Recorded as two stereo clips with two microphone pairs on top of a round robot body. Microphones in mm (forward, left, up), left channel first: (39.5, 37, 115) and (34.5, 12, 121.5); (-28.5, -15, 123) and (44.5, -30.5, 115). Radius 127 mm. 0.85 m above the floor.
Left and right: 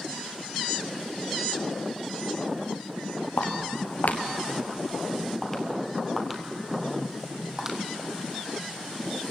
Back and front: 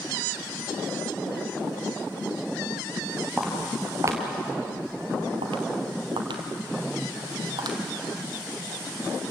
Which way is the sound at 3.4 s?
80° left.